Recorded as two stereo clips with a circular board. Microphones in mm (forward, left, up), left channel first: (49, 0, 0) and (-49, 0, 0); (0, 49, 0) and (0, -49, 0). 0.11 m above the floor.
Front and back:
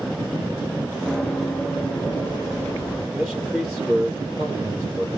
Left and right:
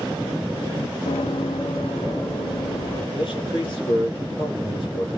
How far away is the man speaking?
About 2 m.